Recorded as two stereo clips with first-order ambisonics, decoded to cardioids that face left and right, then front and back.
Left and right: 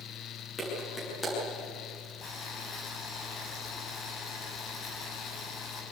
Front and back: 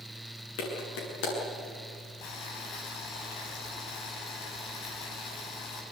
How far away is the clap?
About 8.5 m.